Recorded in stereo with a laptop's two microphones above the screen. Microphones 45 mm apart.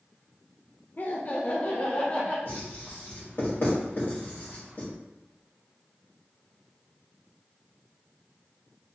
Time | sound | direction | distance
1.0 | laughter | 40° left (ahead or behind) | 0.6 m
2.5 | writing | 50° left (ahead or behind) | 1.4 m